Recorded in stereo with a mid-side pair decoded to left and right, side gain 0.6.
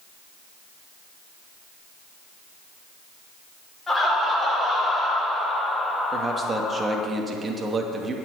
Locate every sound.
3.9 s laughter: 20° left, 5.5 m; by 7.1 s 45° left, 1.4 m
6.1 s a man speaking: 25° right, 2.5 m